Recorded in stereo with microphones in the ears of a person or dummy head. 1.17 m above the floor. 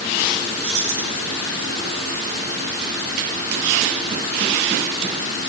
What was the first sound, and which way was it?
Keys jangling, 85° right.